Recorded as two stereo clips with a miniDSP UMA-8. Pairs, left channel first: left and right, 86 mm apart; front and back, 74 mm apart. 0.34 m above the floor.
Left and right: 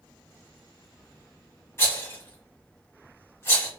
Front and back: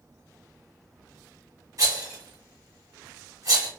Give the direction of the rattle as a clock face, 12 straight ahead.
7 o'clock.